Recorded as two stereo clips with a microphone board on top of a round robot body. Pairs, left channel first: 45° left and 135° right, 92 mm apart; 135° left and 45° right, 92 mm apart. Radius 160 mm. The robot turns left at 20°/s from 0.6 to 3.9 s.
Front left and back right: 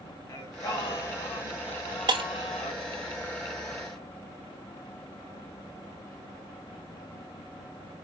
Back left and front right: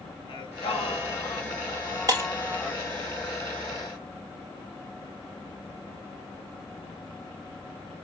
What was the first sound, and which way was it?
Singing, 95° left.